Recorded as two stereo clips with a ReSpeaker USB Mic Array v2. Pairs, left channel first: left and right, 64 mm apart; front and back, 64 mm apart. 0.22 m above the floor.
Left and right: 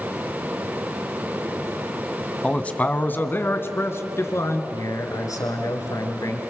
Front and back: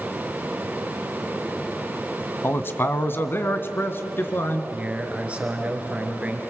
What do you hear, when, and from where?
2.4 s a man speaking: 25° left, 1.2 m; by 4.6 s 50° left, 2.5 m
4.7 s a man speaking: 110° left, 3.5 m